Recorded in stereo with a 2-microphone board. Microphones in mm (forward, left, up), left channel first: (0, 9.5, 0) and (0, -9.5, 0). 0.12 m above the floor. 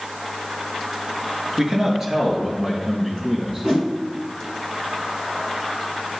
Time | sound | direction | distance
1.6 | a man speaking | 25° right (ahead or behind) | 1.3 m
3.6 | a whoosh | 5° right (ahead or behind) | 2 m